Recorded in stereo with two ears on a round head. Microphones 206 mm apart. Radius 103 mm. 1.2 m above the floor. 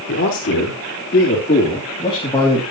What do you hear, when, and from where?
0.1 s a man speaking: 50° left (ahead or behind), 3.5 m; by 2.6 s 10° left (ahead or behind), 2.5 m